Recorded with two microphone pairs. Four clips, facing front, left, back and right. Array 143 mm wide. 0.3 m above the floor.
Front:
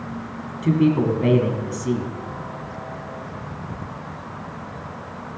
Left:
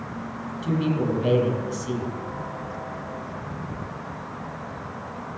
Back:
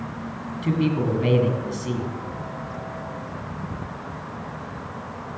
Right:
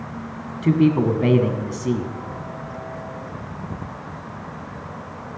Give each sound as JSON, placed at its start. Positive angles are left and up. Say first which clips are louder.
{"t": 0.6, "sound": "a man speaking", "louder": "right 7 dB, front 5 dB", "azimuth_deg": -70, "distance_m": 1.9}